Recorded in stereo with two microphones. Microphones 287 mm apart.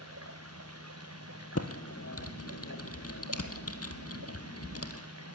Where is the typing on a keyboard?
55° left (ahead or behind), 1.6 m.